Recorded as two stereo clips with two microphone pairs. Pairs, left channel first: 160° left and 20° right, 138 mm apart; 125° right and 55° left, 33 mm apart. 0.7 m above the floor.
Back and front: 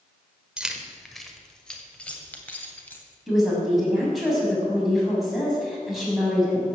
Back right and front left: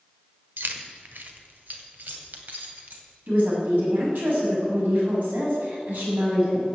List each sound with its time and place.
0.6 s keys jangling: 60° left, 1.4 m; by 3.0 s 85° left, 2.5 m
3.3 s a woman speaking: 70° left, 5.5 m